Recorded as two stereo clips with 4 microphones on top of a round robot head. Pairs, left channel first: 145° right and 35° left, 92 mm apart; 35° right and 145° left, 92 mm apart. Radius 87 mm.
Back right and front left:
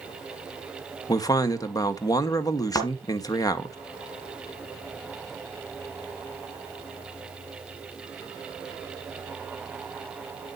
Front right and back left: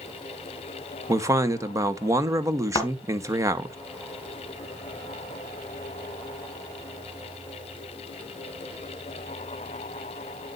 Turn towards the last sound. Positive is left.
turn(degrees=-90)